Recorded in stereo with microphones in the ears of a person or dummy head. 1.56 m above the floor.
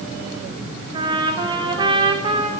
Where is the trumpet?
30° right (ahead or behind), 3 m.